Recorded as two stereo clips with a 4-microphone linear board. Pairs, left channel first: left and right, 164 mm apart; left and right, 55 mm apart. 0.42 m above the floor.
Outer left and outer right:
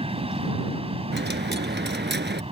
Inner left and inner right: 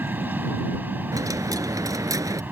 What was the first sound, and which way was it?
An aircraft, 30° right (ahead or behind).